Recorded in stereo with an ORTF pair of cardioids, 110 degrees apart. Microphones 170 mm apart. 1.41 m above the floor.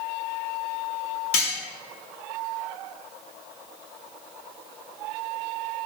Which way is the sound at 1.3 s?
60° left.